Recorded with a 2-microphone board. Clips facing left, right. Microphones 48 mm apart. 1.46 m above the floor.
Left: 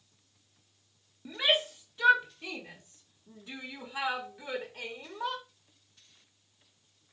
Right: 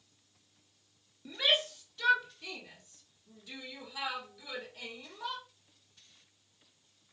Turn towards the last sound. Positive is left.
turn(degrees=40)  # may be behind; listen again after turning